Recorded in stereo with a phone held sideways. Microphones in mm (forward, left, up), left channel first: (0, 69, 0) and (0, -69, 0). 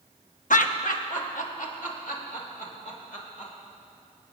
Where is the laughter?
80° left, 0.9 m; by 3.5 s 85° left, 4.5 m.